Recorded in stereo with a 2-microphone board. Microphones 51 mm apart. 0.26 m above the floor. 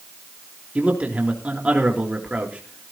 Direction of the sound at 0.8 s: 25° right (ahead or behind).